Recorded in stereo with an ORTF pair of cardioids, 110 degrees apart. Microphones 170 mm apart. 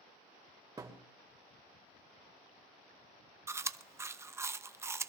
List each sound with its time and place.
0.8 s a thud: 20° right, 2.0 m
3.5 s chewing: 15° right, 0.5 m